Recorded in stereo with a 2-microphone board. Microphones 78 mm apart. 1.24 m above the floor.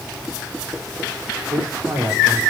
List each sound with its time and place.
1.5 s a man speaking: 70° right (ahead or behind), 4 m